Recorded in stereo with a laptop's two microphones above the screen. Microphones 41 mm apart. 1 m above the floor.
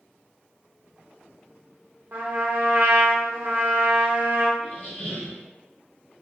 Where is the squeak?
40° left (ahead or behind), 1.0 m.